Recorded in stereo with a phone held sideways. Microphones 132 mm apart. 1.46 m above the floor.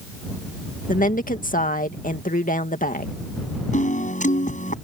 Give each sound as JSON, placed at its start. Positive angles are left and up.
{"t": 0.9, "sound": "a woman speaking", "side_deg": 85}
{"t": 3.7, "sound": "a piano", "side_deg": 65}